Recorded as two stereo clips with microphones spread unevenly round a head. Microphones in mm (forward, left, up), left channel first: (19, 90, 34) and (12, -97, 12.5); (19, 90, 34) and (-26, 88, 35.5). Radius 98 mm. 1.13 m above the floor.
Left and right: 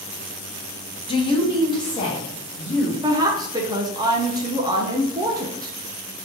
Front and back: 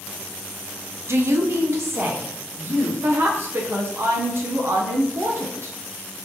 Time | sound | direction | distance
1.1 | a woman speaking | 155° left | 0.7 m
3.0 | a woman speaking | 155° right | 0.6 m